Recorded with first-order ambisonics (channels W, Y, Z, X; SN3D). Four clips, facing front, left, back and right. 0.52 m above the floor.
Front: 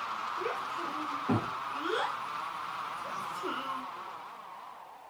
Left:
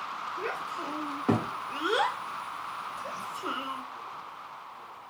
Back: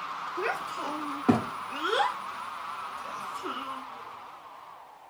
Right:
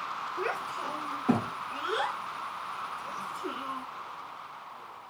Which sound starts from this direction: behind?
A child speaking, at 0.4 s.